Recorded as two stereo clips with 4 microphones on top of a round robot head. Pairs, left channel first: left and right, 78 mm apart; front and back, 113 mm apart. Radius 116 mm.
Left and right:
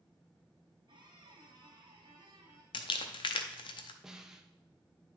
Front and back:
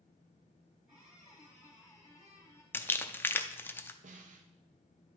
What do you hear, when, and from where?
0.9 s a squeak: 100° right, 1.7 m
2.7 s crumpling: 70° left, 0.6 m
4.0 s a snare drum: 175° right, 0.7 m